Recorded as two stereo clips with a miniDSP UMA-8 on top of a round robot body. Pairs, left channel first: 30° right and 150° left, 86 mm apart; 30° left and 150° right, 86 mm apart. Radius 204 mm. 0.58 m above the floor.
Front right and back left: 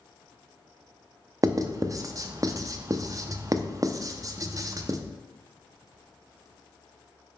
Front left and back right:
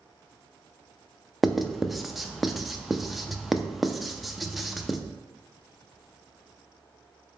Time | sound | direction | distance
1.4 | writing | 120° left | 0.5 m